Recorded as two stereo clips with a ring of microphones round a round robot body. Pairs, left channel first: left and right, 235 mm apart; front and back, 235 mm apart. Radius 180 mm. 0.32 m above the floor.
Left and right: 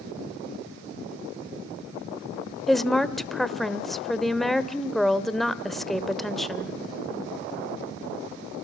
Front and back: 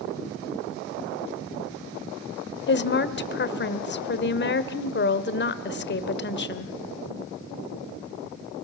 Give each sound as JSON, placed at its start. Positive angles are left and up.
{"t": 2.7, "sound": "a woman speaking", "azimuth_deg": 0, "distance_m": 1.2}